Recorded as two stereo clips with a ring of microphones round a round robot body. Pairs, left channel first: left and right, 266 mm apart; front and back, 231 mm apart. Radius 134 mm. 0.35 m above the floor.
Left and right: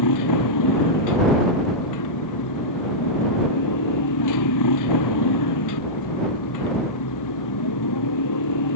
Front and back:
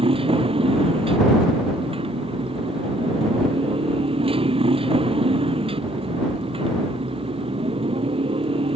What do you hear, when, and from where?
0.0 s a motorcycle: 110° left